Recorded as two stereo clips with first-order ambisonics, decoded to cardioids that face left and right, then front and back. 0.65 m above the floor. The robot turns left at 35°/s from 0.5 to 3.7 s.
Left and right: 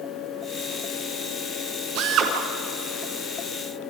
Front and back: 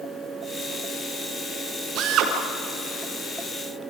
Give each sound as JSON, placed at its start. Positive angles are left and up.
{"t": 1.9, "sound": "a drill", "azimuth_deg": -125, "distance_m": 4.0}